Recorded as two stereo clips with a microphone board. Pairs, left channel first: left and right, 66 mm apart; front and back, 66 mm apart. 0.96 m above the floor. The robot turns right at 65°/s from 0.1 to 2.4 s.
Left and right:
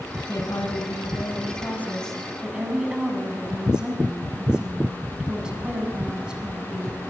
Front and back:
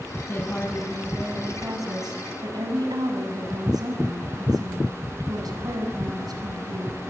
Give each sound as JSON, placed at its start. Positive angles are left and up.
{"t": 0.3, "sound": "a woman speaking", "azimuth_deg": 55, "distance_m": 7.5}